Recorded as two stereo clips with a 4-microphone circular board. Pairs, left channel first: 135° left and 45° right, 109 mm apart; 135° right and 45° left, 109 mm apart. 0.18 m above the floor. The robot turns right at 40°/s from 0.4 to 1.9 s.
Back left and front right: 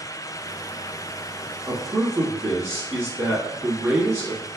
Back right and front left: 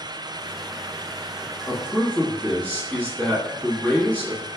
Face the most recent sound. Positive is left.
turn(degrees=-80)